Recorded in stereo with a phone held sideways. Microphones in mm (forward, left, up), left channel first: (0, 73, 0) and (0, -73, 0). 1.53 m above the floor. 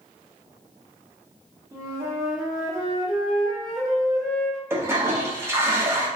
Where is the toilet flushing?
15° right (ahead or behind), 0.8 m.